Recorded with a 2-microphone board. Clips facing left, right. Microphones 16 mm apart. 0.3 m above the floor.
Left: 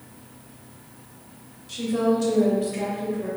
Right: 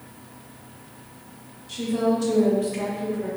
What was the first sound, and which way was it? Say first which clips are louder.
A woman speaking: left 1 dB; 15° left (ahead or behind).